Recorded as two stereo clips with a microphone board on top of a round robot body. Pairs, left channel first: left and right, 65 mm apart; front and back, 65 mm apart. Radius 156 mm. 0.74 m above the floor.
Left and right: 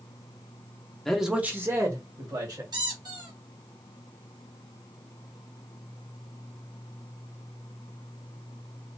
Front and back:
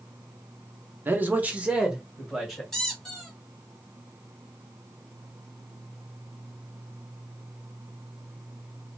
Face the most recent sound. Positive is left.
turn(degrees=-85)